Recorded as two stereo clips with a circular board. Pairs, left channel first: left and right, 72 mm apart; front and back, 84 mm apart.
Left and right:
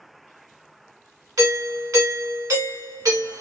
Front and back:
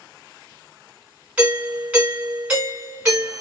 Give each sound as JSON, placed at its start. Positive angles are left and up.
{"t": 1.4, "sound": "a doorbell", "azimuth_deg": -105, "distance_m": 2.0}